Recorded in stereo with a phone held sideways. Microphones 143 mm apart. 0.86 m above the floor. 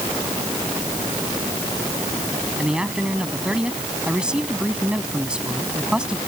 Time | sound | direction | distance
2.6 | a man speaking | 5° right (ahead or behind) | ?